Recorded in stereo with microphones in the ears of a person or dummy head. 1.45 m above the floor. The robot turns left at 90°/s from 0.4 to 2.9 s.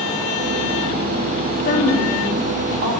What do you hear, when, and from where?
1.6 s a woman speaking: 60° left, 2 m; by 2.9 s 55° right, 2 m